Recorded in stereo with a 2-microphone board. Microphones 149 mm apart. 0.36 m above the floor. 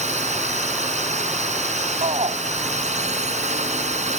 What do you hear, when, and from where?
0.0 s a drone: 50° right (ahead or behind)
2.0 s a shout: 45° right (ahead or behind)